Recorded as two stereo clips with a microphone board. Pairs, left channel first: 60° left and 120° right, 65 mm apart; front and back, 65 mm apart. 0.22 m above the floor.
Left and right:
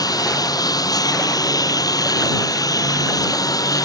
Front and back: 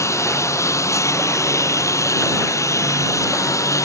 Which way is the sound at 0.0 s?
40° left.